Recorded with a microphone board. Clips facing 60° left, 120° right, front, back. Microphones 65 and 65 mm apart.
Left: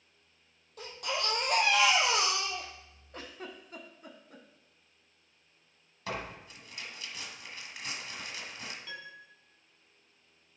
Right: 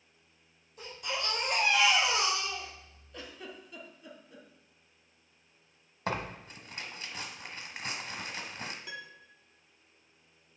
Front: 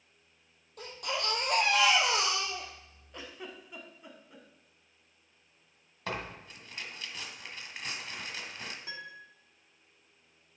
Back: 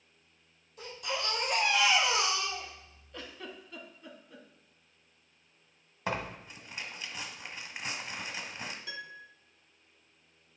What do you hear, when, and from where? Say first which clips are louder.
0.8 s a baby crying: left 2 dB, front 1 dB; 35° left, 1.9 m
3.1 s a giggle: left 1 dB, even; 70° left, 0.9 m
6.1 s tearing paper: right 3 dB, back 3 dB; 115° right, 1.0 m
8.9 s a piano: even, back 1 dB; 50° right, 1.0 m